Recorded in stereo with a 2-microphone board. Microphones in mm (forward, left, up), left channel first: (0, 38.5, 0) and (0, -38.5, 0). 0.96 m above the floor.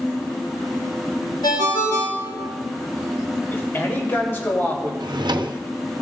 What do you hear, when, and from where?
1.4 s a ringtone: 70° left (ahead or behind), 1.9 m
3.5 s a man speaking: 30° left (ahead or behind), 2 m
5.0 s a drawer: 75° right (ahead or behind), 0.6 m